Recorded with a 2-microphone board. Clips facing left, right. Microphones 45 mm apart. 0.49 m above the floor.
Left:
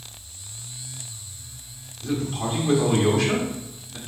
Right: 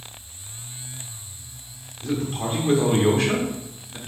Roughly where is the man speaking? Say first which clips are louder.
Even; right.